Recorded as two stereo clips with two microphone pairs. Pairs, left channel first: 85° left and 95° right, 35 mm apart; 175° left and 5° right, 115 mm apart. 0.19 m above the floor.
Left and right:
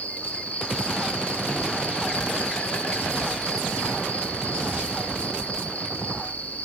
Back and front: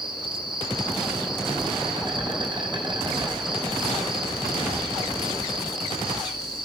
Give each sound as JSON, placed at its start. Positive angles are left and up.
{"t": 0.0, "sound": "an insect", "azimuth_deg": 45, "distance_m": 4.0}